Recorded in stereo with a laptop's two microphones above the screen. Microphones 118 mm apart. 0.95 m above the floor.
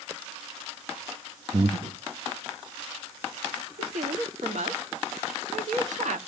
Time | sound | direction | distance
1.5 | breathing | 65° right (ahead or behind) | 0.8 m
3.8 | a woman speaking | 85° right | 1.4 m